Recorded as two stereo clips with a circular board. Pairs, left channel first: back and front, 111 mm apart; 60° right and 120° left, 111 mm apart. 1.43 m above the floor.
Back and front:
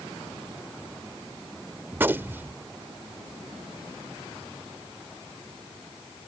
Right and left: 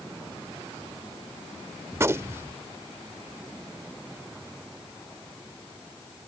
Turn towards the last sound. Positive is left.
turn(degrees=65)